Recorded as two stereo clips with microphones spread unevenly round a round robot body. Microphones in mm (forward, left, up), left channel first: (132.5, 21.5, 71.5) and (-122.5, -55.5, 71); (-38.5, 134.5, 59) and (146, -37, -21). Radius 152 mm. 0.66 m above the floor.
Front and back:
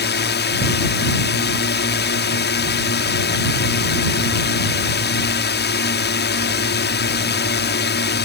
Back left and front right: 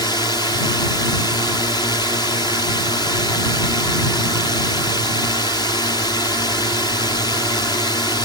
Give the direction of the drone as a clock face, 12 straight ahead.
10 o'clock.